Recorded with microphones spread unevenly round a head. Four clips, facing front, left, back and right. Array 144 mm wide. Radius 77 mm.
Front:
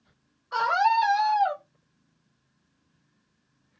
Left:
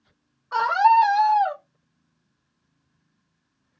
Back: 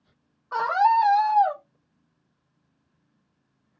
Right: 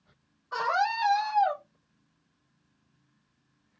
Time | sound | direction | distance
0.5 | a scream | 160° left | 1.2 m